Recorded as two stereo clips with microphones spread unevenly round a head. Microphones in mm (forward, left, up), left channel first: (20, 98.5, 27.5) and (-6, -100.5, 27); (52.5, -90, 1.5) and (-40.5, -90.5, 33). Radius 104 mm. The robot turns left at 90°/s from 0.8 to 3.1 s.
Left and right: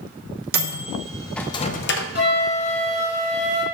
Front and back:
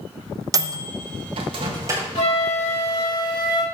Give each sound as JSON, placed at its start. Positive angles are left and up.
{"t": 0.5, "sound": "a microwave", "azimuth_deg": -140, "distance_m": 0.7}
{"t": 2.1, "sound": "a flute", "azimuth_deg": 45, "distance_m": 4.0}